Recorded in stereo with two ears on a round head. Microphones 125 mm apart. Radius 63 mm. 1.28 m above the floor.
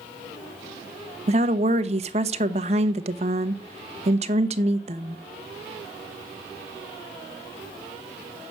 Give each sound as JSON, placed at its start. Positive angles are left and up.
{"t": 1.3, "sound": "a woman speaking", "side_deg": -50, "distance_m": 1.1}